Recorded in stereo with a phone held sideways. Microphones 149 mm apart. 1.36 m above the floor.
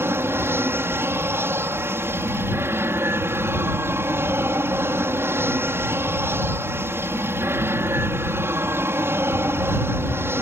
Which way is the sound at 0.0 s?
15° right (ahead or behind).